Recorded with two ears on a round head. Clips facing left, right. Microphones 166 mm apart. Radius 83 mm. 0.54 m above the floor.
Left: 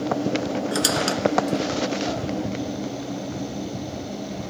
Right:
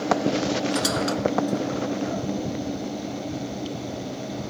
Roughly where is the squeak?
Left.